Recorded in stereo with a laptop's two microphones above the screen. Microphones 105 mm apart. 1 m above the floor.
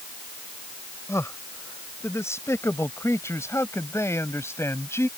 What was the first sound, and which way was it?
A man speaking, 25° left (ahead or behind).